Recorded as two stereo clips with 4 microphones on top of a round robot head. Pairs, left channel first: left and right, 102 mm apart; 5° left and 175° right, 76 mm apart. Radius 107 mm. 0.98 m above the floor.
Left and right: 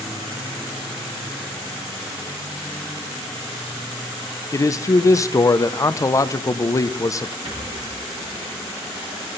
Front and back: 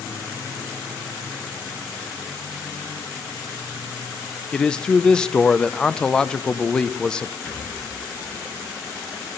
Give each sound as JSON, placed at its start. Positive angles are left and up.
{"t": 4.5, "sound": "a man speaking", "azimuth_deg": 75, "distance_m": 0.6}
{"t": 7.5, "sound": "a rattle", "azimuth_deg": -65, "distance_m": 4.5}